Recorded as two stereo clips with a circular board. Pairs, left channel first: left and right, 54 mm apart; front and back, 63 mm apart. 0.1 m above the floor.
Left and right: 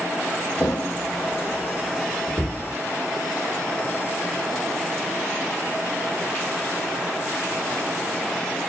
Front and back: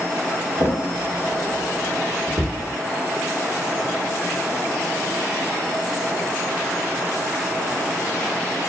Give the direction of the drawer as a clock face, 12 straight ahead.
6 o'clock.